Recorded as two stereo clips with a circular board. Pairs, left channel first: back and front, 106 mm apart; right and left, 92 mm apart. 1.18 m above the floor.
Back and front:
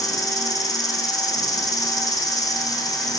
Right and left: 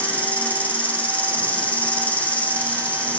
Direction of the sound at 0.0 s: 155° right.